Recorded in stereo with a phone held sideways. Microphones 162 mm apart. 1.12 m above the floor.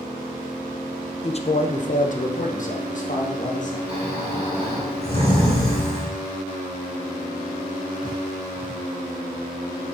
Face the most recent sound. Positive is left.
turn(degrees=-40)  # may be behind; listen again after turning